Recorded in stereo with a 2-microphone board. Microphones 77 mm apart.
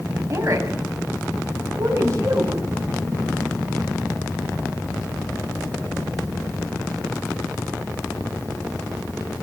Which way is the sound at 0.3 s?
40° right (ahead or behind).